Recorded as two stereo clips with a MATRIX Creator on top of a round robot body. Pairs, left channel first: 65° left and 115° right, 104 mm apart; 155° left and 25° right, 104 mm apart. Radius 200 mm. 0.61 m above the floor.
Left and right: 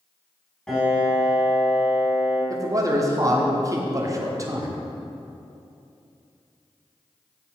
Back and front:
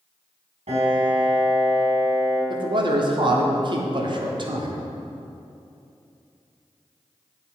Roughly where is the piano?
Ahead.